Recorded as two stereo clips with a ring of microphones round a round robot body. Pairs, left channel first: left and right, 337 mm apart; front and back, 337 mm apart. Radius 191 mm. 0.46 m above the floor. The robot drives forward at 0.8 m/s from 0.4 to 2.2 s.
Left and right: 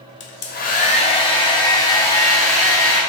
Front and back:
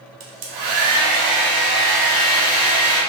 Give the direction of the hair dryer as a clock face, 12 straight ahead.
7 o'clock.